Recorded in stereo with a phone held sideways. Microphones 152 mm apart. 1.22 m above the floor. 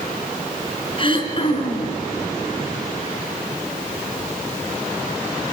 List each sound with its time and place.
1.0 s throat clearing: 35° left (ahead or behind), 3 m